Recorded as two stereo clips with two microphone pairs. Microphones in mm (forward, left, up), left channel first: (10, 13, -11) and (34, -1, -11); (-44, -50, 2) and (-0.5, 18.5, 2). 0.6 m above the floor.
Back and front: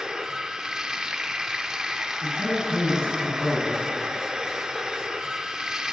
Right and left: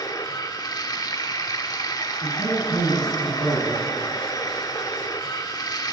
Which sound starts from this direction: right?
Running water, at 0.0 s.